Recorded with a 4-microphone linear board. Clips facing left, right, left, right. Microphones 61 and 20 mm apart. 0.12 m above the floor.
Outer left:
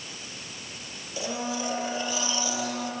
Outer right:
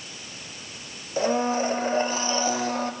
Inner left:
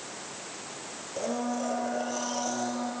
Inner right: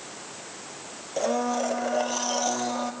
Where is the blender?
40° right (ahead or behind), 3 m.